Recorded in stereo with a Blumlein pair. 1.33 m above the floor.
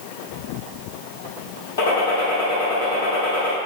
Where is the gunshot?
50° left, 1.4 m.